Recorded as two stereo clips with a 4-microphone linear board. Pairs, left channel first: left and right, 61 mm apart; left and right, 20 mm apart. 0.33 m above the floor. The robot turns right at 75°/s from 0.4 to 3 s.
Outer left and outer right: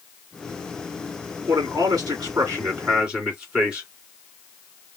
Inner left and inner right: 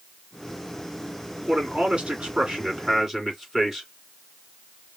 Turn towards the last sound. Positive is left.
turn(degrees=-15)